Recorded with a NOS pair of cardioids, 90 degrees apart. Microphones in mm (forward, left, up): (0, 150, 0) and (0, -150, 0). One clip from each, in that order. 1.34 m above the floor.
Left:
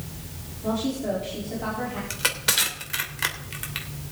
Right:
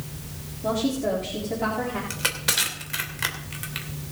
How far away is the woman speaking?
About 4 m.